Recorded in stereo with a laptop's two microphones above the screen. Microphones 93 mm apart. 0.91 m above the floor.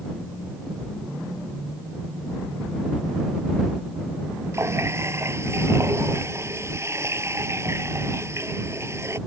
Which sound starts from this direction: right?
A running tap, at 4.5 s.